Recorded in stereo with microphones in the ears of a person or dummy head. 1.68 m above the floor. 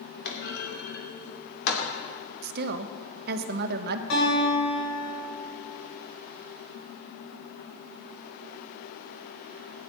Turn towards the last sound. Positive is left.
turn(degrees=70)  # may be behind; listen again after turning